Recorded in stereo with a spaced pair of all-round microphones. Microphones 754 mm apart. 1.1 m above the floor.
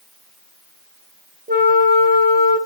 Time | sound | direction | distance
1.5 | a flute | 15° right (ahead or behind) | 0.5 m